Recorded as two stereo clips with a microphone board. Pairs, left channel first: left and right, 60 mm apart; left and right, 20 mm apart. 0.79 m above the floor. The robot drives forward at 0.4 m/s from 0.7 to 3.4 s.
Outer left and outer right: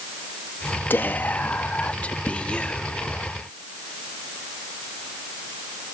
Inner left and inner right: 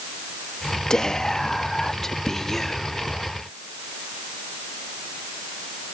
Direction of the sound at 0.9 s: 35° left (ahead or behind).